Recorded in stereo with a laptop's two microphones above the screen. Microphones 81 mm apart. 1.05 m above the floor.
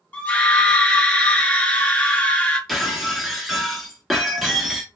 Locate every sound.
0.1 s a scream: 20° left (ahead or behind), 1.2 m
2.7 s breaking glass: centre (ahead or behind), 1.0 m